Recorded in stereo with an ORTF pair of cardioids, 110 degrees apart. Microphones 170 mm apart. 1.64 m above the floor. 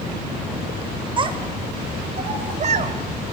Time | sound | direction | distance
1.2 | a child speaking | 30° right | 3.5 m